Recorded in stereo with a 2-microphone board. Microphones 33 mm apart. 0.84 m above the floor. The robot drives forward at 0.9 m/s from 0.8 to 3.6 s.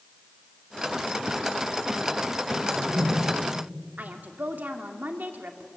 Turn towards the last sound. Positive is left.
turn(degrees=-75)  # may be behind; listen again after turning